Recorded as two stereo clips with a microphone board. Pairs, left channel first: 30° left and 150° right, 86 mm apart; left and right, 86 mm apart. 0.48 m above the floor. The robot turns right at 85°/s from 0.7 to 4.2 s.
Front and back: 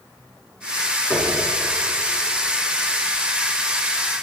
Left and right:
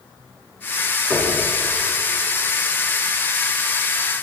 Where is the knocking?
25° right, 5.5 m; by 1.4 s 5° right, 5.5 m.